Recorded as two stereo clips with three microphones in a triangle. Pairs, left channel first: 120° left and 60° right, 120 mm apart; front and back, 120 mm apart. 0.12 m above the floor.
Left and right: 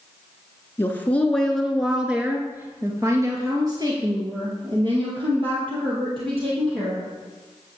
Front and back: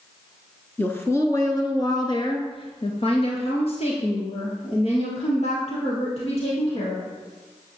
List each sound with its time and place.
0.8 s a woman speaking: 60° left, 1.4 m; by 7.1 s 25° right, 3.5 m